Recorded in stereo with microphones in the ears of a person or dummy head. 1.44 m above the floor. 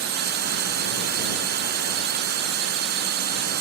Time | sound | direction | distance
0.0 | a drone | 55° right (ahead or behind) | ?